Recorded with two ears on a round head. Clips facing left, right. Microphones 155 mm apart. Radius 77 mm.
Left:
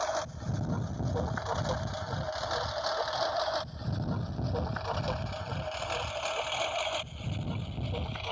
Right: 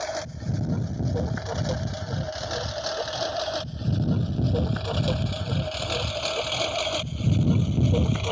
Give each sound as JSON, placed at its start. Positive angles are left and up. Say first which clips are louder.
{"t": 0.0, "sound": "a lawn mower", "louder": "right 2 dB", "side_deg": -25}